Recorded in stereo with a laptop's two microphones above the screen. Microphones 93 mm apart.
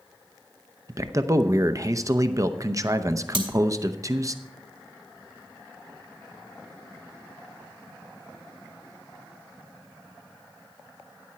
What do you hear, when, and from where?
0.9 s a man speaking: 35° right (ahead or behind), 0.6 m
3.3 s cutlery clinking: 65° right (ahead or behind), 2 m